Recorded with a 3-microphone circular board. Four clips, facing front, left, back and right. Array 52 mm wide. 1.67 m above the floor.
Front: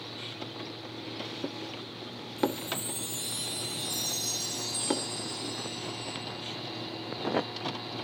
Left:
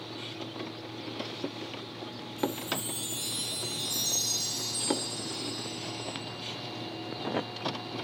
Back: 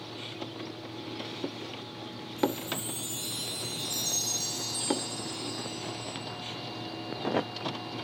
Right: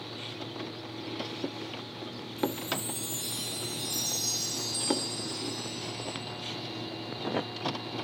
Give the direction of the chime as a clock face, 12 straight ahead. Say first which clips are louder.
Even, even; 9 o'clock.